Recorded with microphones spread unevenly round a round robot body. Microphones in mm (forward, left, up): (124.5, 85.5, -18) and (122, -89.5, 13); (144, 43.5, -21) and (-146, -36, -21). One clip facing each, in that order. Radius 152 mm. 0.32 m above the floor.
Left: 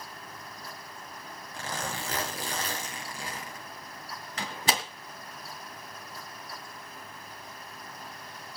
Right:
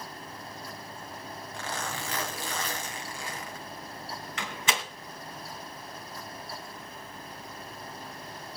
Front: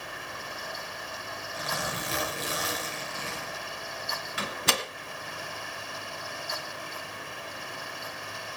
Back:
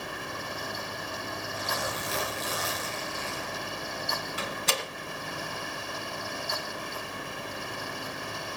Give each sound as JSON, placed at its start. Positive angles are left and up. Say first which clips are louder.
{"t": 1.5, "sound": "a zipper", "louder": "left 1 dB, front 1 dB", "azimuth_deg": 35, "distance_m": 5.0}
{"t": 4.4, "sound": "a door slam", "louder": "left 3 dB, front 3 dB", "azimuth_deg": 45, "distance_m": 2.5}